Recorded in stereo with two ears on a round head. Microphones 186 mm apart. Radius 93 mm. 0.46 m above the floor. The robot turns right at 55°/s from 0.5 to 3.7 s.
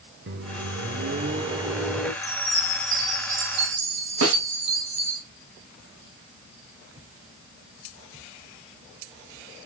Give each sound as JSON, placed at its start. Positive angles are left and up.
{"t": 0.3, "sound": "a microwave", "azimuth_deg": -85, "distance_m": 0.8}
{"t": 2.2, "sound": "a chime", "azimuth_deg": 160, "distance_m": 1.4}
{"t": 4.2, "sound": "a snare drum", "side_deg": -70, "distance_m": 1.3}